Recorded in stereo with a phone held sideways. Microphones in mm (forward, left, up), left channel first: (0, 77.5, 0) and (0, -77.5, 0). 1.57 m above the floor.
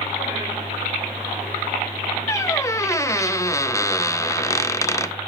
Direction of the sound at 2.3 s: 20° left (ahead or behind).